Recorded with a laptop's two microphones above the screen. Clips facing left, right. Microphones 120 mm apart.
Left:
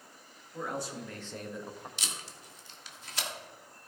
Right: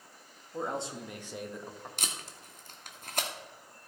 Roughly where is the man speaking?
Right.